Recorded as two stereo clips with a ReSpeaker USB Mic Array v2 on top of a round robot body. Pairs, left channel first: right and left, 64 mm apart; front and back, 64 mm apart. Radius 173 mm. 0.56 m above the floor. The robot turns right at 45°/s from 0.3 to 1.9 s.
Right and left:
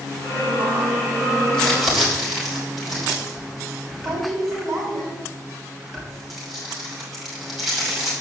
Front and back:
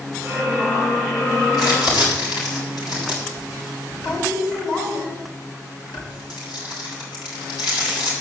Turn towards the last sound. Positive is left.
turn(degrees=0)